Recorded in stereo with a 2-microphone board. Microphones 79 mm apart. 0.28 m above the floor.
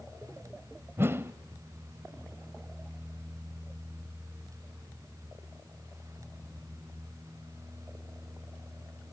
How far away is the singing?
No singing in this recording.